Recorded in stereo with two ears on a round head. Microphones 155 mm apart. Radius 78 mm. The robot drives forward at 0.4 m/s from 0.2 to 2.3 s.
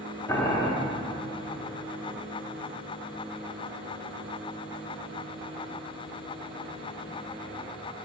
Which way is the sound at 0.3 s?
20° left (ahead or behind).